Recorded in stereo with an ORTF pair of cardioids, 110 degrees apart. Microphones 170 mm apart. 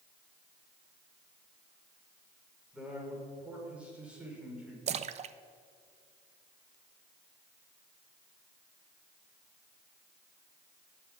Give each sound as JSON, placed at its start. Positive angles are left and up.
{"t": 2.7, "sound": "a man speaking", "azimuth_deg": -5, "distance_m": 5.0}
{"t": 4.9, "sound": "a splash", "azimuth_deg": -40, "distance_m": 0.6}